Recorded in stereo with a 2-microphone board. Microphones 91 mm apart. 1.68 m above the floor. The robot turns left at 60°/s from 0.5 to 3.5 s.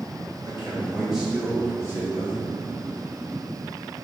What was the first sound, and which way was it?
A man speaking, 140° right.